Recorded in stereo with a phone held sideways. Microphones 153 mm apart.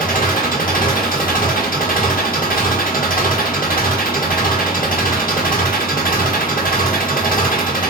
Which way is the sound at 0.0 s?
65° left (ahead or behind).